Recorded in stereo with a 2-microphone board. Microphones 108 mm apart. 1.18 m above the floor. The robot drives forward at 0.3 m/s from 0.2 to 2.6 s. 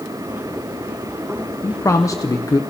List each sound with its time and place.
1.6 s a man speaking: 30° left (ahead or behind), 0.6 m; by 2.6 s 35° left (ahead or behind), 0.5 m